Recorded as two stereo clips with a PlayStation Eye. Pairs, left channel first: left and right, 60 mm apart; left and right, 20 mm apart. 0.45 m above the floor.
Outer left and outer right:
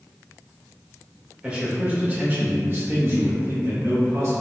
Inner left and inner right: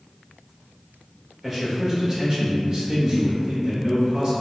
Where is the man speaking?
20° right (ahead or behind), 1.3 m; by 4.3 s 55° right (ahead or behind), 1.7 m.